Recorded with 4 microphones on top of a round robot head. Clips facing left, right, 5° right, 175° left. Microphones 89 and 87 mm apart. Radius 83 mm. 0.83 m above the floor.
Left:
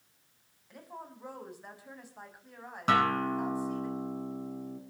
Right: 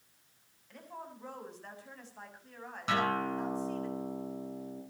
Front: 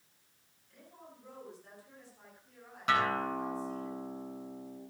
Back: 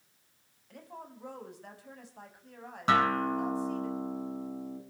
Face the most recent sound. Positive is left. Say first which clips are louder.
# left 4 dB, back 4 dB
turn(degrees=125)